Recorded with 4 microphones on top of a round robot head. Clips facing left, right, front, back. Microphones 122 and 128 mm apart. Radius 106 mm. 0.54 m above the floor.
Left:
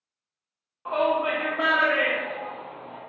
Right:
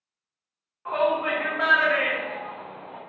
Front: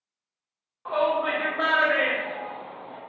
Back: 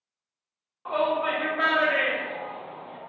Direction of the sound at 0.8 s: 100° left.